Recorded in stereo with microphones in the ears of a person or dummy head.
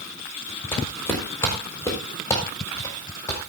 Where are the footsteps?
10° left (ahead or behind), 6 m; by 3.4 s 15° left (ahead or behind), 8 m.